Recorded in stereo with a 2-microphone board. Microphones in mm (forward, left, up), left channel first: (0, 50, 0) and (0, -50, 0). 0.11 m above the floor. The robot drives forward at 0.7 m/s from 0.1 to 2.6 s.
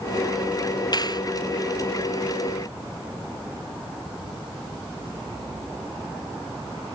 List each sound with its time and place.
0.9 s a clap: 40° left (ahead or behind); by 1.2 s 45° left (ahead or behind)